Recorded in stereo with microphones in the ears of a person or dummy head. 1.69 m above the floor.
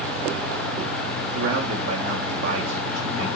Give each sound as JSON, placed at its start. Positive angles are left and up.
{"t": 1.3, "sound": "a man speaking", "side_deg": -70, "distance_m": 2.0}